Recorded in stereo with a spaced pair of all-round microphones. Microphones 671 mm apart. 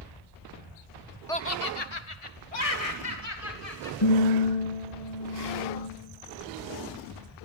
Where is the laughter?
5° left (ahead or behind), 0.8 m; by 3.9 s 65° left (ahead or behind), 4 m.